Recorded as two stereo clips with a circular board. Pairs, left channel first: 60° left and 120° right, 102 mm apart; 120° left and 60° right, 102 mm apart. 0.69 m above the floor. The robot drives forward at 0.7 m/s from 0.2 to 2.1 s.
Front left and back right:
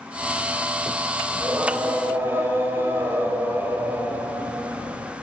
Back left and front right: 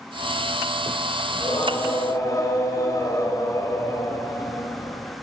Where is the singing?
170° left, 3 m.